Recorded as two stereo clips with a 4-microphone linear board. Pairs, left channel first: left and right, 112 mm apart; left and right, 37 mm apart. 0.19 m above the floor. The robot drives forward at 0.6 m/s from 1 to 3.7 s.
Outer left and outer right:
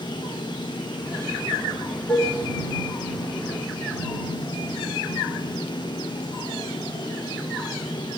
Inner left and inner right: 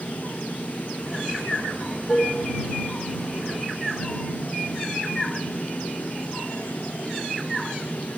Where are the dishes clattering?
10° left (ahead or behind), 1.4 m.